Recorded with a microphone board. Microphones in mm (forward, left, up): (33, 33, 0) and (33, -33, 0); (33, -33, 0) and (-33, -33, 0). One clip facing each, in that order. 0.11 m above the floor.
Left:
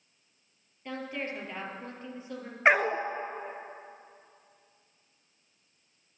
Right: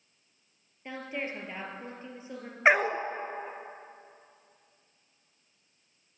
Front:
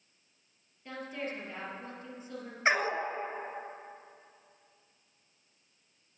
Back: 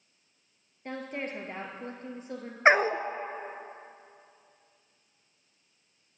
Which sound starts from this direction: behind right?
A woman speaking, at 0.8 s.